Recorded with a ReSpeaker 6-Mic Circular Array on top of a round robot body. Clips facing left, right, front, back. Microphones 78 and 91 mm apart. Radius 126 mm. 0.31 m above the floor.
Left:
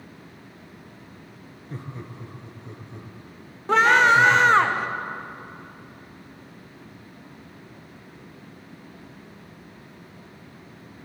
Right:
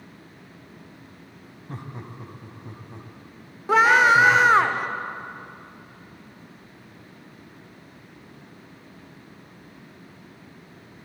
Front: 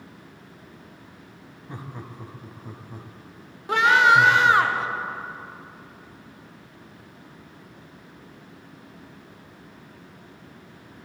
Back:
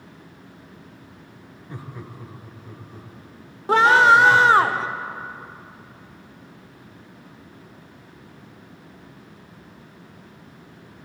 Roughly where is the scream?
Behind.